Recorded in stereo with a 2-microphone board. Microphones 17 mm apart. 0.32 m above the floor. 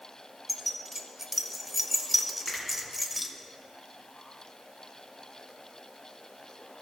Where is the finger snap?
Centre (ahead or behind), 2.5 m.